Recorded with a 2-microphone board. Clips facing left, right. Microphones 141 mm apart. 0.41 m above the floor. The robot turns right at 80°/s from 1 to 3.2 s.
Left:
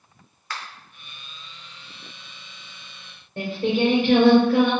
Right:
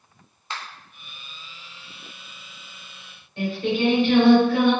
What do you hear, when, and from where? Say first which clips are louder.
0.5 s a finger snap: even; 25° right (ahead or behind), 0.6 m
3.4 s singing: left 1 dB; 50° left (ahead or behind), 1.6 m